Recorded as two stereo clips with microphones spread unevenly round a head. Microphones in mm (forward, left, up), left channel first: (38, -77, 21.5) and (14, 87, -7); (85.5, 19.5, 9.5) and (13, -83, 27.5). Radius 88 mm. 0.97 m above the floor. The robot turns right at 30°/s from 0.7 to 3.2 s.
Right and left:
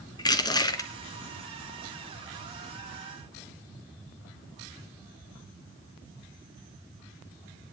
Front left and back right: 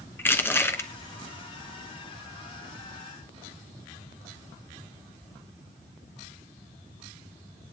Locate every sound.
0.2 s crushing: 20° right, 2.5 m; by 0.9 s 15° right, 2.5 m